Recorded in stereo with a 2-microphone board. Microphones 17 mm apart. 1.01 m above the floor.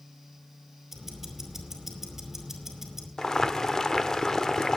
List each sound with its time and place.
0.9 s ticking: 15° right (ahead or behind), 4.5 m
3.2 s boiling: 35° left (ahead or behind), 1.0 m